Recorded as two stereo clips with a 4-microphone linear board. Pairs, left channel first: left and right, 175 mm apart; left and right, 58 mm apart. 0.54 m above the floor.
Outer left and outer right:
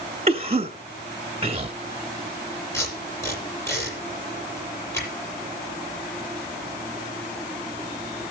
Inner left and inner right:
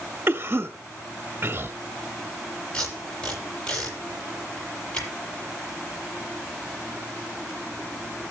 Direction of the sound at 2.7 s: 15° left (ahead or behind).